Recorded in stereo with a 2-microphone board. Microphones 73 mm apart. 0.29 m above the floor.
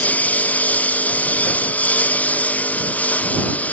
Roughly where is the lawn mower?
Left.